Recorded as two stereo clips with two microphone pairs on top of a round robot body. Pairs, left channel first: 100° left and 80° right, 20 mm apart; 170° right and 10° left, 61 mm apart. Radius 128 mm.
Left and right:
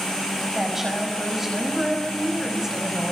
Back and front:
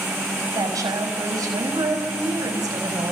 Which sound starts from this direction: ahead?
A woman speaking, at 0.6 s.